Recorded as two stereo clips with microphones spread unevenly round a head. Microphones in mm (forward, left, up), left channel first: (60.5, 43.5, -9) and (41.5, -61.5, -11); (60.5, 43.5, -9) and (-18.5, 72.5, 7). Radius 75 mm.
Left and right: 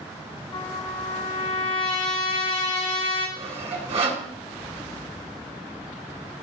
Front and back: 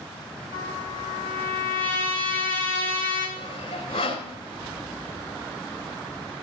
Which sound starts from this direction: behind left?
A trumpet, at 0.5 s.